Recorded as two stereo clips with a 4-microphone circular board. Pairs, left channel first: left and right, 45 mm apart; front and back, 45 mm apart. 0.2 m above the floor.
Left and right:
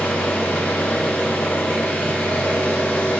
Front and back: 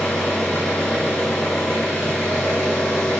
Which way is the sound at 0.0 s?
80° left.